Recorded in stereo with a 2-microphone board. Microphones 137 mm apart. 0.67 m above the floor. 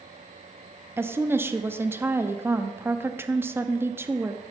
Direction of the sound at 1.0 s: 15° right (ahead or behind).